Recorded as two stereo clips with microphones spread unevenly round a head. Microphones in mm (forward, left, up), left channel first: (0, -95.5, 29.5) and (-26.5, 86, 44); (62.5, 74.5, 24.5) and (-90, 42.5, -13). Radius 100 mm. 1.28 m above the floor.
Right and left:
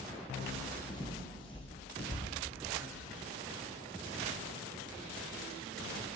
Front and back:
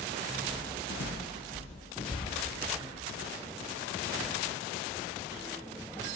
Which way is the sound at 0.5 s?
10° right.